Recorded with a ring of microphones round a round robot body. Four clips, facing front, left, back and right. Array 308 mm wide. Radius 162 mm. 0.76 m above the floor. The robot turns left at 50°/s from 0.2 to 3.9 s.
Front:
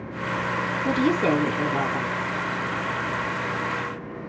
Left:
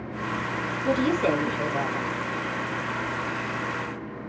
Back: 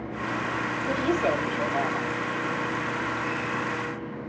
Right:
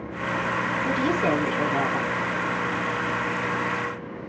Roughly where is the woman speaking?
Ahead.